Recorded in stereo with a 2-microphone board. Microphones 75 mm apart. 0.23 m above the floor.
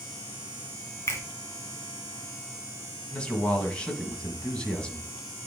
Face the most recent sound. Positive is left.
turn(degrees=15)  # may be behind; listen again after turning